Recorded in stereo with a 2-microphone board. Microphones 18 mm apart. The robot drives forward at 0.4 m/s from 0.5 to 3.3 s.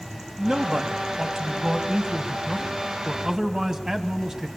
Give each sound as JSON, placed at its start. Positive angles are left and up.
{"t": 0.4, "sound": "a man speaking", "side_deg": -45, "distance_m": 2.0}